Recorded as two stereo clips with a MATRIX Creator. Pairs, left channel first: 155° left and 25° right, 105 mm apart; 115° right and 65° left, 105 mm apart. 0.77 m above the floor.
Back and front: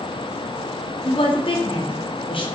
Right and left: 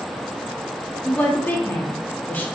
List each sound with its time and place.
1.1 s a woman speaking: 175° left, 0.6 m